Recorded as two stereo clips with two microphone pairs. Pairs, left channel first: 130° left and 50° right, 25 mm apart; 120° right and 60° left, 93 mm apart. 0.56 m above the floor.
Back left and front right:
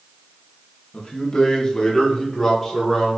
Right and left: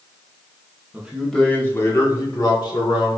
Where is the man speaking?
130° left, 0.9 m; by 3.2 s 140° right, 1.8 m.